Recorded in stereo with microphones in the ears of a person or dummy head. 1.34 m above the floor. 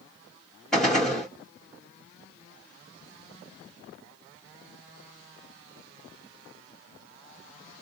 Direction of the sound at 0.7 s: Centre (ahead or behind).